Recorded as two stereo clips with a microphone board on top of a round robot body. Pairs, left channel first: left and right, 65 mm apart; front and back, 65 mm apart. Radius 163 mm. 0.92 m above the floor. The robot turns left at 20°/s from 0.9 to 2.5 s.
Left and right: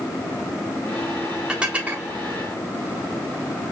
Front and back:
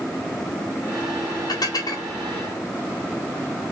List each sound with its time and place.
1.5 s dishes clattering: 10° right, 4 m; by 2.1 s 25° right, 4 m